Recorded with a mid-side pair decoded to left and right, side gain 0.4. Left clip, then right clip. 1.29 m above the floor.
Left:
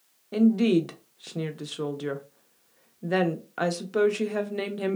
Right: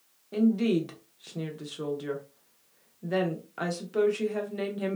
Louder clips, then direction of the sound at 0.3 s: Left 4 dB; 40° left.